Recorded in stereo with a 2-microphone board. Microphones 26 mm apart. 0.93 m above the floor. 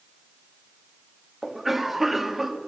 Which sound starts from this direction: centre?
A cough, at 1.4 s.